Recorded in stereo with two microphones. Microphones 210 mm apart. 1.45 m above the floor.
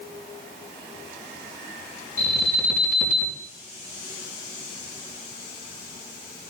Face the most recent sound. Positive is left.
turn(degrees=-45)  # may be behind; listen again after turning